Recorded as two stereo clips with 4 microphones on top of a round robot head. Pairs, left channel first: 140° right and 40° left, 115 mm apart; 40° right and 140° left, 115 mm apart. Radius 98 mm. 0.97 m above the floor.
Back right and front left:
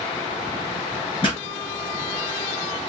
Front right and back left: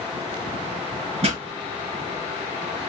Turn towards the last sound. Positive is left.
turn(degrees=170)